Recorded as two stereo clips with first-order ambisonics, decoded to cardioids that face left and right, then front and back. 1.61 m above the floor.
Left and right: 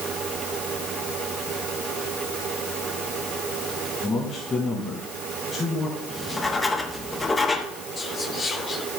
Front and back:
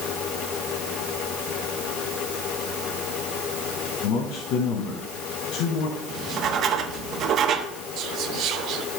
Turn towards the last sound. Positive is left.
turn(degrees=150)